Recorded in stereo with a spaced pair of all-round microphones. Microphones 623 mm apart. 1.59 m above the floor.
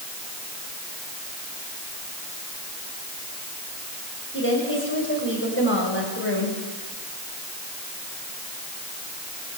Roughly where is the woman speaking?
Centre.